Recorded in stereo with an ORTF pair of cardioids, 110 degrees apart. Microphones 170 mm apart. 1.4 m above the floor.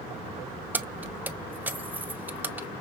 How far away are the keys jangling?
About 0.7 m.